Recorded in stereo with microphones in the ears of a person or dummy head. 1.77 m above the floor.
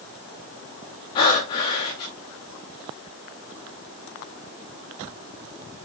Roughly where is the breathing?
Left.